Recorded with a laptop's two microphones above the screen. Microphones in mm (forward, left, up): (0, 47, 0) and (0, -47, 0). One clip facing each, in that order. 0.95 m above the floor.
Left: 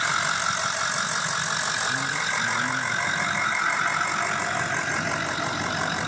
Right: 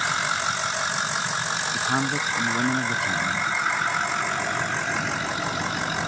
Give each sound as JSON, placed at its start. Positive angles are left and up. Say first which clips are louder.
{"t": 1.7, "sound": "a man speaking", "louder": "right 3 dB", "side_deg": -70}